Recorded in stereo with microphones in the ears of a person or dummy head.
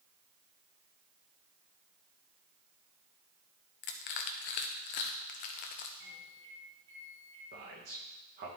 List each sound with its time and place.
3.8 s crushing: 50° left (ahead or behind), 0.6 m
6.0 s a microwave: 70° right (ahead or behind), 3 m
7.5 s a man speaking: 50° right (ahead or behind), 1.7 m